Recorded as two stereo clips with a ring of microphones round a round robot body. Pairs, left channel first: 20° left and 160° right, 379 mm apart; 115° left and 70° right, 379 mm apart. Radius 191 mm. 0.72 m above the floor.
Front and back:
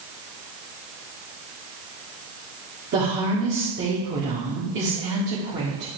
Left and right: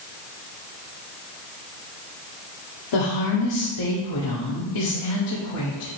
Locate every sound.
2.9 s a woman speaking: 140° left, 1.6 m